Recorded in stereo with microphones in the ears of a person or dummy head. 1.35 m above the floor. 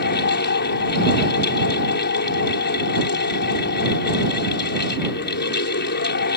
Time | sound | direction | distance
0.0 | a fan | 55° left (ahead or behind) | ?